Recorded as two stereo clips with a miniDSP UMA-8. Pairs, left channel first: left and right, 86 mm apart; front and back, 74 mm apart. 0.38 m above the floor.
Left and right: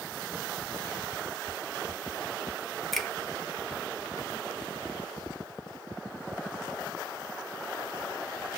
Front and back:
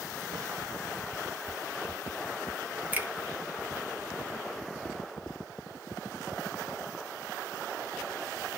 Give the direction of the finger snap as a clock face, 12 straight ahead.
6 o'clock.